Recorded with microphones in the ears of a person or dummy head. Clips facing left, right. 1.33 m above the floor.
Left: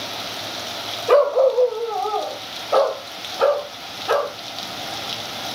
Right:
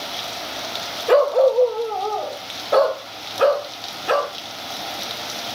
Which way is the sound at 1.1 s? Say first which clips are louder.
Even; 5° right (ahead or behind).